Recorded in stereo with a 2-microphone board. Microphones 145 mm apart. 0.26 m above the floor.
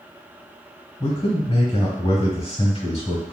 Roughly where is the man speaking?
Left.